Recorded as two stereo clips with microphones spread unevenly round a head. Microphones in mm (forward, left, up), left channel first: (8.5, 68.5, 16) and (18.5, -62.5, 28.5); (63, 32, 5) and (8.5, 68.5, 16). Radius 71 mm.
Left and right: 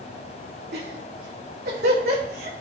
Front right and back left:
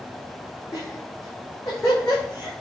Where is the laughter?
95° right, 3 m.